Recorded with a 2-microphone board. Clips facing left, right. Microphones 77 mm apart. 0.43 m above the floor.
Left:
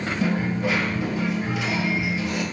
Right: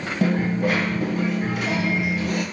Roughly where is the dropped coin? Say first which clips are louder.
Right 4 dB; right.